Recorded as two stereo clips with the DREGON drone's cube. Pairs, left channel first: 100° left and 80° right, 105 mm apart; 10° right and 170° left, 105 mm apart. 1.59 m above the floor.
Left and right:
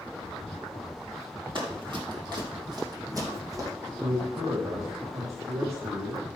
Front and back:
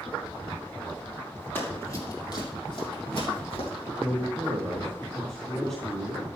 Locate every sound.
1.6 s running footsteps: 75° right, 2.5 m; by 3.7 s 25° right, 4 m
4.0 s a man speaking: 95° right, 1.5 m